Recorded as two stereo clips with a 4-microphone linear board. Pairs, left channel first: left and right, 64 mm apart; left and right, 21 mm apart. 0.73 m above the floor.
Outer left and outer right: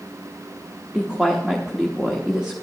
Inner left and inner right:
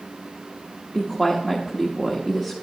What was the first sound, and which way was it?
A woman speaking, 15° right (ahead or behind).